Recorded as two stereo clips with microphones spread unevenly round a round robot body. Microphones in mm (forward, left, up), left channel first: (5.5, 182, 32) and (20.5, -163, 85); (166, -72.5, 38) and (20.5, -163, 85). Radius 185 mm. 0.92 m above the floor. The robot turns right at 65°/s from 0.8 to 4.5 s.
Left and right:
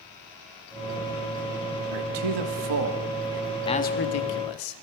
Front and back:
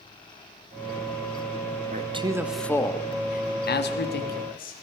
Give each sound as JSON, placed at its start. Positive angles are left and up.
{"t": 1.9, "sound": "a man speaking", "azimuth_deg": -95, "distance_m": 1.4}